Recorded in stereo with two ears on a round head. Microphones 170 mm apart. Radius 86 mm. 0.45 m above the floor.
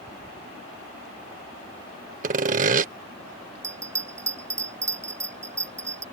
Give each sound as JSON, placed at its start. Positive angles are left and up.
{"t": 2.2, "sound": "sawing", "side_deg": -45}
{"t": 3.6, "sound": "a bell", "side_deg": -15}